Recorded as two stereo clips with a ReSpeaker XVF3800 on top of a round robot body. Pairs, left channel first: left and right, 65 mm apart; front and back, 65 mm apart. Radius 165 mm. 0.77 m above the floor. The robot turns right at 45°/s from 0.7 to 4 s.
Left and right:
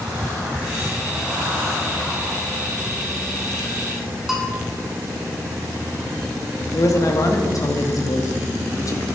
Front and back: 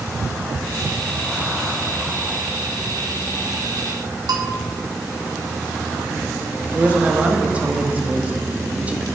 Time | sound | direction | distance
4.3 | a bell | 175° right | 1.9 m
6.7 | a man speaking | 115° left | 1.8 m